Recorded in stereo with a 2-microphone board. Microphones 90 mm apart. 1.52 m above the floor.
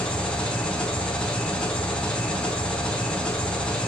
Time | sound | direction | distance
0.0 | an engine running | 10° left (ahead or behind) | 5 m